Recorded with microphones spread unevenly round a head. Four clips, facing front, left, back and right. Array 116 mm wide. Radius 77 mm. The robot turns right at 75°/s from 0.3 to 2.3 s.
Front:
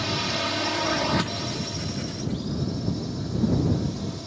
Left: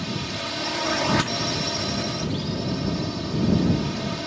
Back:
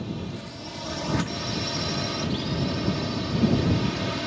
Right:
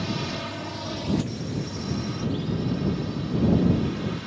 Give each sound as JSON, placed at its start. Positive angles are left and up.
{"t": 0.0, "sound": "a drone", "azimuth_deg": 5}